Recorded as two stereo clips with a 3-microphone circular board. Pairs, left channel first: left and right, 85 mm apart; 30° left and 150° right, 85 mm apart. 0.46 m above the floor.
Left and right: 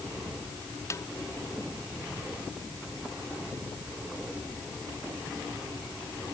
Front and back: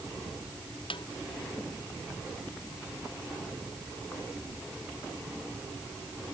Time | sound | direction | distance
0.9 | a snare drum | 35° left | ?